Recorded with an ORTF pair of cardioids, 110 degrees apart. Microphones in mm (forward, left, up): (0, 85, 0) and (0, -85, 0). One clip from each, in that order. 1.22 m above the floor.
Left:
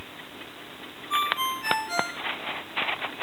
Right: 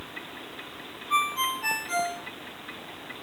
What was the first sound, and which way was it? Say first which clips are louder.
A ringtone: even; 10° right.